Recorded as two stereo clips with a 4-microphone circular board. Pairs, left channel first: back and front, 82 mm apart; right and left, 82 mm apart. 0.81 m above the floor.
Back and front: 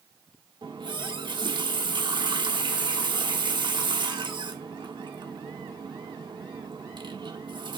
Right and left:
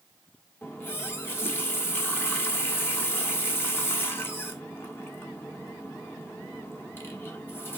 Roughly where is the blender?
I don't hear a blender.